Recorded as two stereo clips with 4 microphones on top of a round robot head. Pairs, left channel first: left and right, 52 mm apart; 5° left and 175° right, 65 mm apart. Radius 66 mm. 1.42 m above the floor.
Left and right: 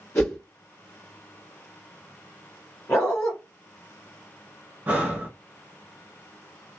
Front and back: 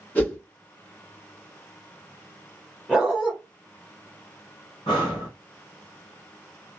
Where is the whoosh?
65° left, 1.5 m.